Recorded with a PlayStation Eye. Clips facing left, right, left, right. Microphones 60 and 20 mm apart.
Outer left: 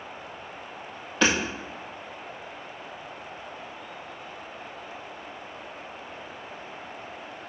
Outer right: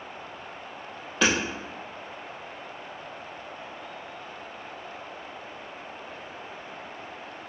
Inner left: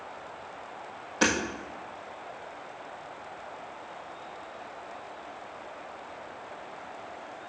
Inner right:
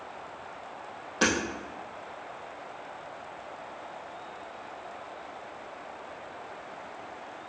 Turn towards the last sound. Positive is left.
turn(degrees=0)  # may be behind; listen again after turning